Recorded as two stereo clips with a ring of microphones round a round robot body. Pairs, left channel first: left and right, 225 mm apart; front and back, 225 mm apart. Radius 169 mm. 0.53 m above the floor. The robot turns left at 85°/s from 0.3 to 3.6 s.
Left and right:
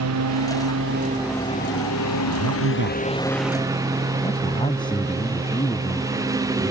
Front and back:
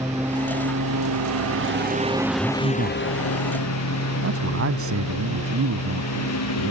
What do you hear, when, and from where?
0.0 s a lawn mower: 95° right; by 6.7 s 15° right
2.3 s a man speaking: 80° right; by 6.7 s 165° left